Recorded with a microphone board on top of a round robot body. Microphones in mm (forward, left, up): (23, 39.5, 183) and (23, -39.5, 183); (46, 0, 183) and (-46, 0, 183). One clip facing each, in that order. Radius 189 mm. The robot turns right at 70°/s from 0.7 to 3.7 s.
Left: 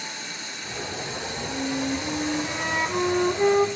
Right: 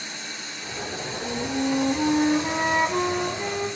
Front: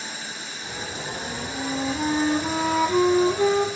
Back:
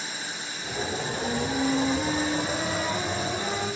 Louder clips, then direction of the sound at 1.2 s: Right 6 dB, back 6 dB; 125° right.